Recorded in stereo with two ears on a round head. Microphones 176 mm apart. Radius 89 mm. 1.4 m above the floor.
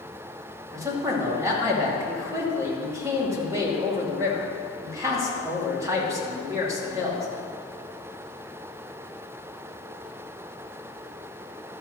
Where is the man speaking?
15° right (ahead or behind), 2.5 m.